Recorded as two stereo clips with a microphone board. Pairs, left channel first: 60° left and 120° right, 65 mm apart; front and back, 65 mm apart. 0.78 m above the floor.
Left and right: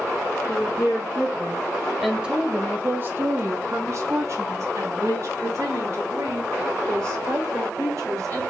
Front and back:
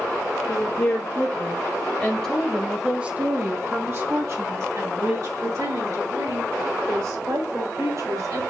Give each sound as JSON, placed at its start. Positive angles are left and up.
{"t": 0.5, "sound": "a woman speaking", "azimuth_deg": 0, "distance_m": 1.3}